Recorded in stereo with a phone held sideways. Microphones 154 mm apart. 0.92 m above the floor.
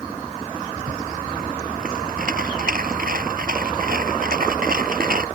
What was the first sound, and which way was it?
A rattle, 70° right (ahead or behind).